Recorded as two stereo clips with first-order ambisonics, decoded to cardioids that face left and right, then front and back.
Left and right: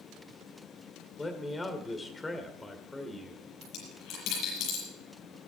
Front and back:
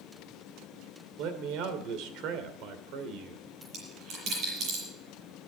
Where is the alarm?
I don't hear an alarm.